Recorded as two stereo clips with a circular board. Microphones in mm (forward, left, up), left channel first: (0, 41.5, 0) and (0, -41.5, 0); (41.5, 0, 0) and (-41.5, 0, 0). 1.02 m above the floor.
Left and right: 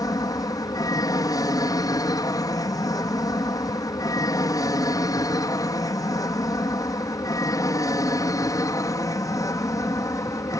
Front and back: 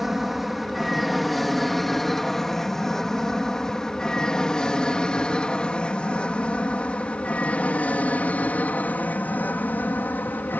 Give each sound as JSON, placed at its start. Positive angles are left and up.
{"t": 0.0, "sound": "an aircraft", "azimuth_deg": 95}